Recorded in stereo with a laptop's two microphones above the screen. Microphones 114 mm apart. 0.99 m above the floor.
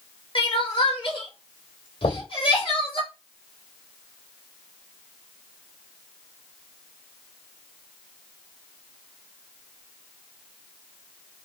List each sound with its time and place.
0.3 s crying: 50° left (ahead or behind), 1.3 m
2.0 s knocking: 85° left, 2.5 m